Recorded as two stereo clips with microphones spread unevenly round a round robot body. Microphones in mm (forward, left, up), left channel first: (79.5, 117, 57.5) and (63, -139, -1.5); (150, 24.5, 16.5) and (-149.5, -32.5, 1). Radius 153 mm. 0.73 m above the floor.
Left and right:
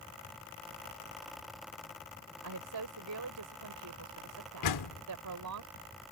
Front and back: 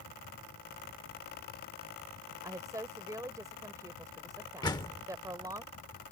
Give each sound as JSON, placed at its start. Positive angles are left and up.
{"t": 2.4, "sound": "a woman speaking", "azimuth_deg": -90}
{"t": 4.6, "sound": "a door slam", "azimuth_deg": 90}